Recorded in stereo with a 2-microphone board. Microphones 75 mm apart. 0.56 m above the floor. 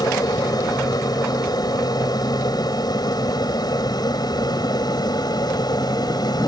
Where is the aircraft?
55° left (ahead or behind); by 6.5 s 60° left (ahead or behind).